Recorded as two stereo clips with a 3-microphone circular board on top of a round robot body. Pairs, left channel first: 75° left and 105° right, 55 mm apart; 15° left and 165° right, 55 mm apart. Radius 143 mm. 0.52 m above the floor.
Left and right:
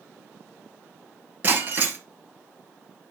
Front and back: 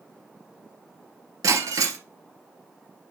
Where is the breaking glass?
160° right, 1.2 m.